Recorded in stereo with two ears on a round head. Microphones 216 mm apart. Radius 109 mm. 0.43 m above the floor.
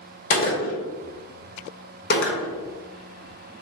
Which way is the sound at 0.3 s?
40° left (ahead or behind).